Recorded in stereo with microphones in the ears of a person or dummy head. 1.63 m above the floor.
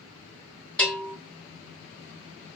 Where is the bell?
5° left (ahead or behind), 2.0 m.